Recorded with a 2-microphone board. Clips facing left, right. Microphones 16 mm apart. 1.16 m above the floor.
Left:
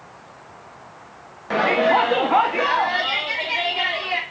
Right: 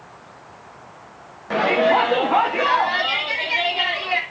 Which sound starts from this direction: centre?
A shout, at 1.5 s.